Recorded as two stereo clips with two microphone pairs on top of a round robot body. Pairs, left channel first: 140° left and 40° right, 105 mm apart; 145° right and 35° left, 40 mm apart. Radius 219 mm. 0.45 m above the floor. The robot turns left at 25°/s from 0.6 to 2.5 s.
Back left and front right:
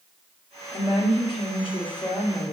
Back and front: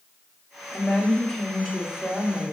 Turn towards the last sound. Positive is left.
turn(degrees=105)